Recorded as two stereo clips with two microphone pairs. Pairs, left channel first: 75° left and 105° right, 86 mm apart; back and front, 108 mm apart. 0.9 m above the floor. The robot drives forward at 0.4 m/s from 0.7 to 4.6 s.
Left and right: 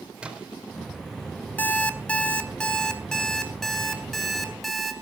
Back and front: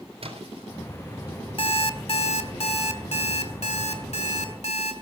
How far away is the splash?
About 4 m.